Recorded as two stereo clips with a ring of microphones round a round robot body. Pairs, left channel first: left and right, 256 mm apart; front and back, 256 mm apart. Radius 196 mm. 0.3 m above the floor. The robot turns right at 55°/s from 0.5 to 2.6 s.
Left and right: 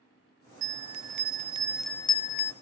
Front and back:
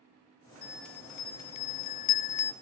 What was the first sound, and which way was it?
A bell, 70° right.